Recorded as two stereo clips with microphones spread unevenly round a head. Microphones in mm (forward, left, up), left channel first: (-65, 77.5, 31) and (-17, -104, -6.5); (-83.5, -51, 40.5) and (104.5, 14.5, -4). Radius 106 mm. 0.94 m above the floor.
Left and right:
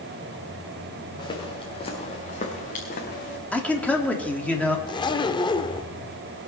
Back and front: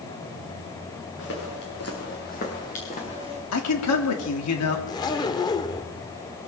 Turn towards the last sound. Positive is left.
turn(degrees=150)